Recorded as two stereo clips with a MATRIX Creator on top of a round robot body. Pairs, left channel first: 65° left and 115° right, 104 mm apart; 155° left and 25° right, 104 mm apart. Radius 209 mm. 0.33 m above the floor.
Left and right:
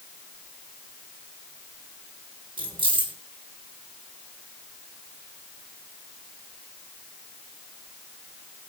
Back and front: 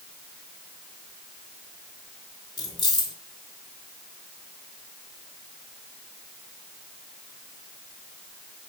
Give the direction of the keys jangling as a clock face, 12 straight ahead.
5 o'clock.